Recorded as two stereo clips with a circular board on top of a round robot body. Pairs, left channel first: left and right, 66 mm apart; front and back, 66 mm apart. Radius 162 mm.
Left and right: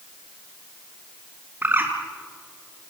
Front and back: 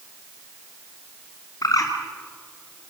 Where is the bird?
30° right, 3 m.